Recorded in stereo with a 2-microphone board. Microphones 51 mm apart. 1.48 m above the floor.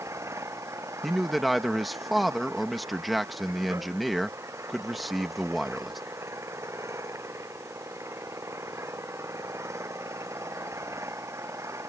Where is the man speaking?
Centre (ahead or behind).